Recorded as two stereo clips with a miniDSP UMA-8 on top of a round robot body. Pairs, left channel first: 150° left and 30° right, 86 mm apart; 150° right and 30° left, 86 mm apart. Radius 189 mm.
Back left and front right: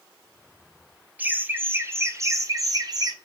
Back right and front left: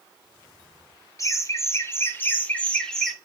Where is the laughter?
100° right, 2 m; by 3.1 s 65° right, 1.6 m.